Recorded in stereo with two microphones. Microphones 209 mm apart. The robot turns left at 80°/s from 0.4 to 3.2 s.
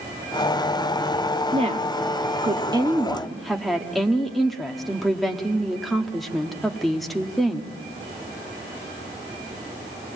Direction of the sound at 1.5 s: 45° right.